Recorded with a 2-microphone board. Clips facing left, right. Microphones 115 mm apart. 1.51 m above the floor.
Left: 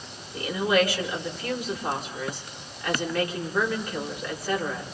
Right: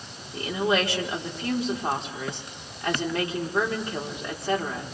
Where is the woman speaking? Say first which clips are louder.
Left 1 dB; 30° right (ahead or behind), 5 m.